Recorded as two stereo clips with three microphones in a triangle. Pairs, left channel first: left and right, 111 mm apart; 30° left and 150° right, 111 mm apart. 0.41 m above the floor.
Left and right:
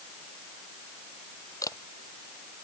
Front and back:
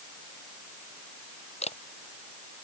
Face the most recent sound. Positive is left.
turn(degrees=30)